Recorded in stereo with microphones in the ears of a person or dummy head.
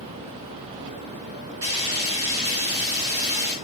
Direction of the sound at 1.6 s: 25° right (ahead or behind).